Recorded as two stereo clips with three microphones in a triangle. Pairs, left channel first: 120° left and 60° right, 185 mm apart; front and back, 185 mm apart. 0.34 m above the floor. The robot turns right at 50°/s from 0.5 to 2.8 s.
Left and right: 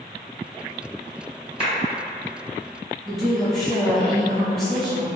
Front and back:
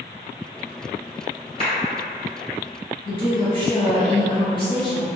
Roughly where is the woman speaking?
Ahead left.